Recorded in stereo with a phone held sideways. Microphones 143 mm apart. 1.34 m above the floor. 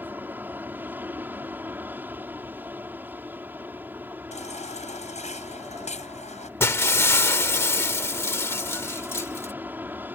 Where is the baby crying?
55° left (ahead or behind).